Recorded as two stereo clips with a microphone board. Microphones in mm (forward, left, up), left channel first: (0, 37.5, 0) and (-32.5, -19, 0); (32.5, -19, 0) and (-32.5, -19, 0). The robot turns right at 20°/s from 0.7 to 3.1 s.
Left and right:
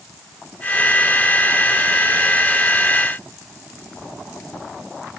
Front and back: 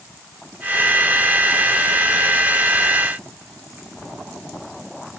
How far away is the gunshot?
No gunshot in this recording.